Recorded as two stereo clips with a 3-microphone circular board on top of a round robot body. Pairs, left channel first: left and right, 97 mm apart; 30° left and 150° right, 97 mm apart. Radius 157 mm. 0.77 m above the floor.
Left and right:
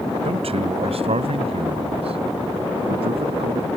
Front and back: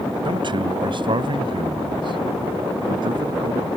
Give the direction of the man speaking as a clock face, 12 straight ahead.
4 o'clock.